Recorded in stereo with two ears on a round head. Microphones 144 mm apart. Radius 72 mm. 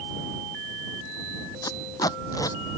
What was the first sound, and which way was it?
Tape being pulled, 25° left (ahead or behind).